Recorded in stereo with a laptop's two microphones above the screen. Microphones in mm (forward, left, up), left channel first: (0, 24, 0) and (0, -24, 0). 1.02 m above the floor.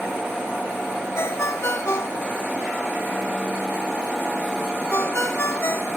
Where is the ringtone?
75° left (ahead or behind).